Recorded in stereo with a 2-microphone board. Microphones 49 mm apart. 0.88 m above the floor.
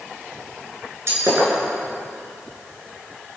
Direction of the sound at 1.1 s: 60° right (ahead or behind).